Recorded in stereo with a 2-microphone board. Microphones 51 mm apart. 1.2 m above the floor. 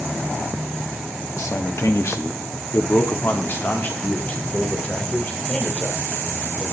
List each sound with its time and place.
1.4 s a man speaking: 80° left, 1.8 m; by 6.7 s 25° left (ahead or behind), 5 m